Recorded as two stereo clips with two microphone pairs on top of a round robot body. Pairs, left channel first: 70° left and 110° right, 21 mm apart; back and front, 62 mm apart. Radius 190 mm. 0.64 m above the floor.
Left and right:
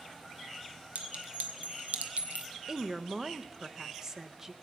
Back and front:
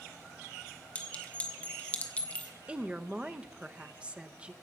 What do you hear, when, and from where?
0.9 s a clink: 115° right, 1.5 m
2.7 s a woman speaking: 70° right, 1.0 m